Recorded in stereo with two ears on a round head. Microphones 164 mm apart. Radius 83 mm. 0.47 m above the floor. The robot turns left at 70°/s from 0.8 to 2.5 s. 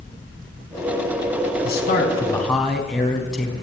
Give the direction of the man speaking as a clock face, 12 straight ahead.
10 o'clock.